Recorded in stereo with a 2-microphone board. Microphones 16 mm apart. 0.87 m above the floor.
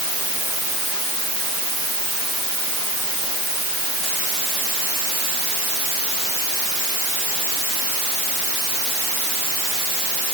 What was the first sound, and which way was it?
Only background noise.